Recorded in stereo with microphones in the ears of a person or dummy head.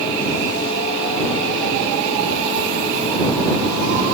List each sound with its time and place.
Only background noise.